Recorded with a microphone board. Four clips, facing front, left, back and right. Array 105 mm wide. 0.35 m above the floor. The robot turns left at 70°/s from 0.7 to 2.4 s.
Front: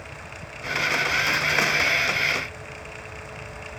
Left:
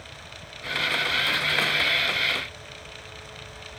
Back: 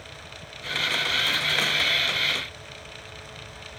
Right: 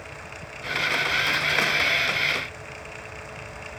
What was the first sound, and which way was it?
Only background noise.